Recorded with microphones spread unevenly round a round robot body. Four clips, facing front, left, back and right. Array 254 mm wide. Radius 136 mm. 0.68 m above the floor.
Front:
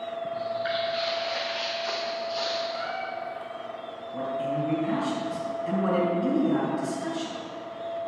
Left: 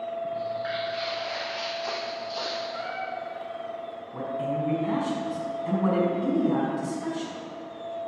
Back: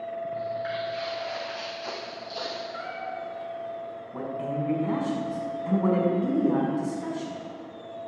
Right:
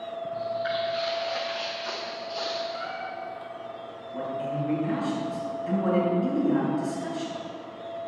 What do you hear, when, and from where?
0.3 s footsteps: 160° left, 3.5 m; by 2.6 s 145° left, 1.8 m
2.7 s a cat meowing: 140° left, 3.5 m
4.1 s a man speaking: 125° left, 5.5 m